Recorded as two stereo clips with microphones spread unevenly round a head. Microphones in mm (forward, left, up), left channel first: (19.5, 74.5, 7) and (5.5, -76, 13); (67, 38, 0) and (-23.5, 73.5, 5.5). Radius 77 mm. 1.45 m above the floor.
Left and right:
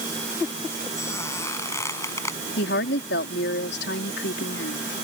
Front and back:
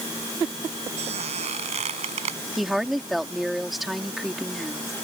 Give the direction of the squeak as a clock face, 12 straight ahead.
7 o'clock.